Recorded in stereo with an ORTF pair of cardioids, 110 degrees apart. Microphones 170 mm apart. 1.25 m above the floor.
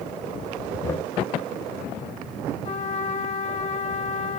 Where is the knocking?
20° left, 3.5 m.